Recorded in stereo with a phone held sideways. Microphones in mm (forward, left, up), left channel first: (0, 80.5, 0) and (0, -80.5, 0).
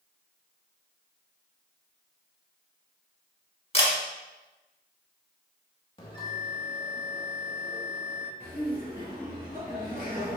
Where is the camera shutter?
40° left (ahead or behind), 1.4 m.